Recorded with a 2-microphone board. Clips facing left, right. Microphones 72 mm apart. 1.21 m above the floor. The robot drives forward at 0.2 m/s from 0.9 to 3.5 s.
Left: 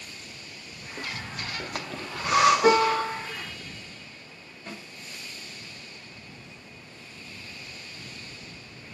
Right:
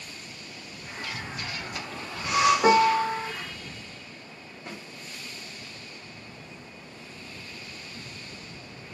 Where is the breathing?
45° left (ahead or behind), 0.5 m.